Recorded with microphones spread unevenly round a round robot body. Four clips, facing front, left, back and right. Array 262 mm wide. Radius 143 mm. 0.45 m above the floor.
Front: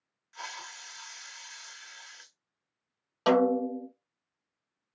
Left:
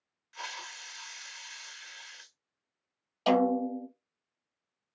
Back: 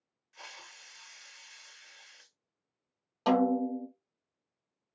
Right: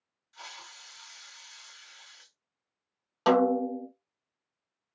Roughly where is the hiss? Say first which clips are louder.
Left 5 dB, front 9 dB; ahead left.